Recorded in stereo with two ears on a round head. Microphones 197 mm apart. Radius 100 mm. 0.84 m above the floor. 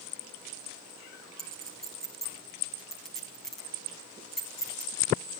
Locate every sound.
1.4 s a clink: centre (ahead or behind), 5 m